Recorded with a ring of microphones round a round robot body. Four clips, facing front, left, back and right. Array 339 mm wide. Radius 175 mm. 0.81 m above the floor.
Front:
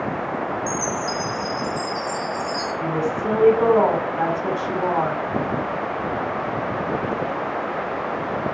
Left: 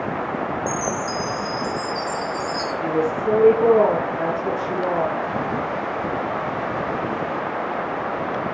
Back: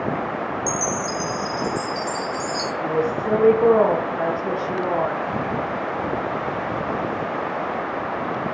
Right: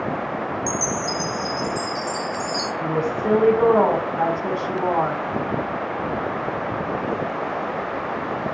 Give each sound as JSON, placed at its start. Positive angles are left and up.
{"t": 0.7, "sound": "a chime", "azimuth_deg": -115, "distance_m": 4.5}
{"t": 2.8, "sound": "a woman speaking", "azimuth_deg": -55, "distance_m": 7.0}